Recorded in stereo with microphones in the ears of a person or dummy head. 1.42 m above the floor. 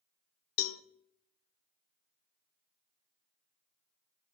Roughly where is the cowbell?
Left.